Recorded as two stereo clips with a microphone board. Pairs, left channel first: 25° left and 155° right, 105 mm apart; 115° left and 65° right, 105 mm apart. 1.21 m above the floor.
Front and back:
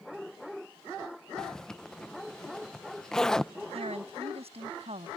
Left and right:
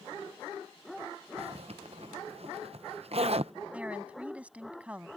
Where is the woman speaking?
145° right.